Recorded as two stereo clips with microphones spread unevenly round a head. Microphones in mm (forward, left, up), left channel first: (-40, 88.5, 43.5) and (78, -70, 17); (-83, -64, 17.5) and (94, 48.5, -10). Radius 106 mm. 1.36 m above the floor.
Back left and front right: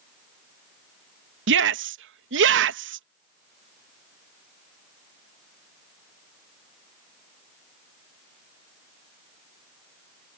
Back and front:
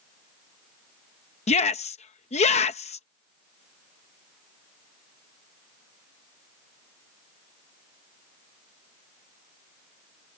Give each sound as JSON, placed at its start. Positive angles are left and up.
{"t": 1.5, "sound": "a shout", "azimuth_deg": -85}